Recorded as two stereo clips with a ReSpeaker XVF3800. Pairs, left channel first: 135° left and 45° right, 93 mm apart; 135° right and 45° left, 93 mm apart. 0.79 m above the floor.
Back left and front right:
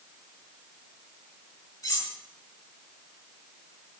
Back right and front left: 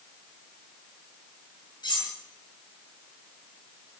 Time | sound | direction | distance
1.8 | cutlery clinking | 175° right | 7 m